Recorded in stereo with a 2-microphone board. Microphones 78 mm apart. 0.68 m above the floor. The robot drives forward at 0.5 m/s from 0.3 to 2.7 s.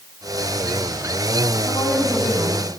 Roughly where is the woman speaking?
Centre.